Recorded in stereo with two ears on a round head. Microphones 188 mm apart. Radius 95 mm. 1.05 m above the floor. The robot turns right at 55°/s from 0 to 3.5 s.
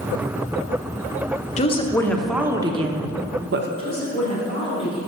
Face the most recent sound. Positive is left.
turn(degrees=25)  # may be behind; listen again after turning